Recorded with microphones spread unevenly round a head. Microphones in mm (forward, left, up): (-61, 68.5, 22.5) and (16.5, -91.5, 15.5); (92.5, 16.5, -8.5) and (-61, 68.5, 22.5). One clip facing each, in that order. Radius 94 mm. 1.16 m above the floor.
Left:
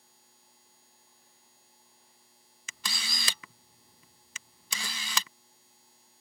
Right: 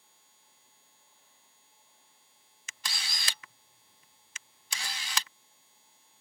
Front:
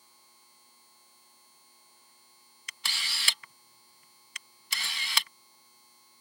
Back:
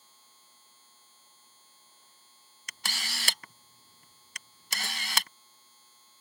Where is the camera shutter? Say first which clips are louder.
Left 2 dB, back 3 dB; 120° left.